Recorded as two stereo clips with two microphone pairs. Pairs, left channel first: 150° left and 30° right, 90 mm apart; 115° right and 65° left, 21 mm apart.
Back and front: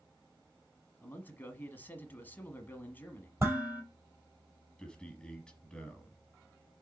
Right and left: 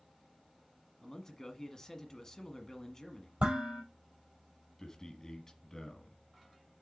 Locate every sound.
1.0 s a man speaking: 165° right, 1.2 m
3.4 s dishes clattering: 30° left, 4 m
4.8 s a man speaking: 145° right, 1.3 m